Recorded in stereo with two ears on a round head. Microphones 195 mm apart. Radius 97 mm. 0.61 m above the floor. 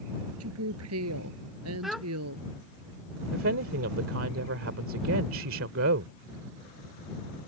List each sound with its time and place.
0.4 s a woman speaking: 80° right
1.8 s a child speaking: centre (ahead or behind)
3.3 s a woman speaking: 70° right (ahead or behind)